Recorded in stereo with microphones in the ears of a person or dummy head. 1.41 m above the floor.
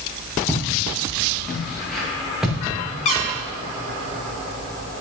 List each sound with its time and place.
0.5 s footsteps: 15° left (ahead or behind), 5.5 m; by 2.6 s 5° right (ahead or behind), 6.5 m
3.0 s a squeak: 25° left (ahead or behind), 1.1 m